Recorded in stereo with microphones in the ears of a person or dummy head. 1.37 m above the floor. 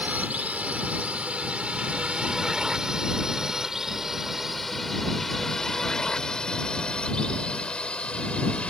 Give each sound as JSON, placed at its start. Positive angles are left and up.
{"t": 0.0, "sound": "a drone", "side_deg": -10}